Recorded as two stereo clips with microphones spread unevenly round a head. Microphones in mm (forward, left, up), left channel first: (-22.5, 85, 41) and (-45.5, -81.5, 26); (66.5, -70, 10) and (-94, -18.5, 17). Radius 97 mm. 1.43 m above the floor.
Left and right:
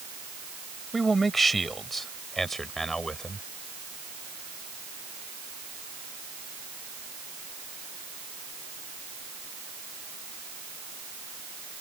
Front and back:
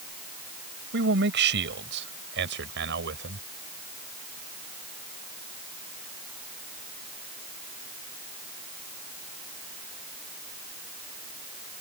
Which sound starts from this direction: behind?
A man speaking, at 0.9 s.